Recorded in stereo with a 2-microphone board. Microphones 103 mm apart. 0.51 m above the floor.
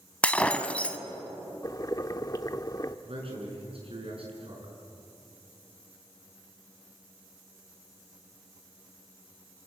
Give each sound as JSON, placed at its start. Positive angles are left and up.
{"t": 0.2, "sound": "breaking glass", "side_deg": 10, "distance_m": 1.2}
{"t": 1.6, "sound": "boiling", "side_deg": 35, "distance_m": 0.8}
{"t": 3.0, "sound": "a man speaking", "side_deg": -65, "distance_m": 7.0}